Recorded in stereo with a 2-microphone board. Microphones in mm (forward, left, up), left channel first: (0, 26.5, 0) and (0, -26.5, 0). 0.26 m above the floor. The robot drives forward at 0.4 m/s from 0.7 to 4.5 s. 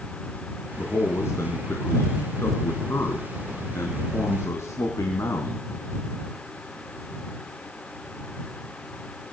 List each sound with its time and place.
0.8 s a man speaking: 60° left (ahead or behind), 3 m